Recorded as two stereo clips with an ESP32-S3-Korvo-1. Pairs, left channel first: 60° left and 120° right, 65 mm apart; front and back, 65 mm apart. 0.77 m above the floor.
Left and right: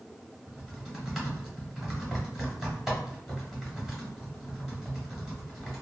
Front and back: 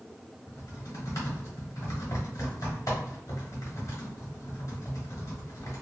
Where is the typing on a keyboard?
40° right, 1.3 m.